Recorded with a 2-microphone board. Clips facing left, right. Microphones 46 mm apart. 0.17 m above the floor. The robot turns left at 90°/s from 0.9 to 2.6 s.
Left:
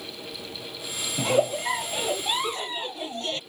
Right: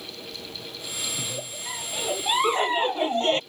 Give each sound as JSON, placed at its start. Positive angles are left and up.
{"t": 1.2, "sound": "a giggle", "azimuth_deg": 85}